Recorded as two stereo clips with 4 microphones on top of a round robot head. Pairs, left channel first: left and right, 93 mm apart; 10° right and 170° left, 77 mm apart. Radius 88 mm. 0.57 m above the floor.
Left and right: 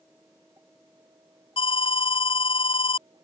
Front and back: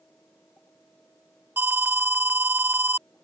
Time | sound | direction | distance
1.6 | an alarm | 105° left | ?